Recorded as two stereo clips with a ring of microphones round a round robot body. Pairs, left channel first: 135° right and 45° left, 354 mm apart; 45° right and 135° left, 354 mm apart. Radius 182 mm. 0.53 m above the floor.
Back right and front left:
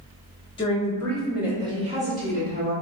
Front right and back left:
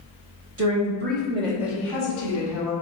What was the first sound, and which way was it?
A woman speaking, 155° left.